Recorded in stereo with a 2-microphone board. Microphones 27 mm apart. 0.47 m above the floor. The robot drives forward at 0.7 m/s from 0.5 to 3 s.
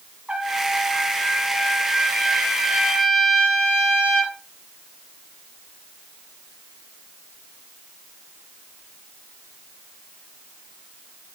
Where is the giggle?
I don't hear a giggle.